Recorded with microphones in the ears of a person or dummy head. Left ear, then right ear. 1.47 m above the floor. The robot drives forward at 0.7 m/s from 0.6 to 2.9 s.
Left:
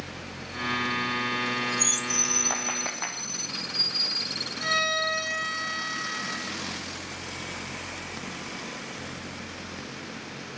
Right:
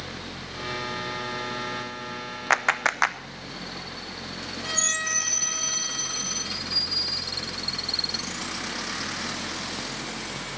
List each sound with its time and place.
2.5 s a clap: 70° right (ahead or behind), 0.8 m; by 3.2 s 55° right (ahead or behind), 0.9 m
4.6 s a violin: 60° left (ahead or behind), 5.5 m